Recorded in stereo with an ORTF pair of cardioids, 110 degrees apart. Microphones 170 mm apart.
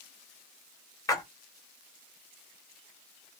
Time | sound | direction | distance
1.1 | a splash | 20° left | 0.8 m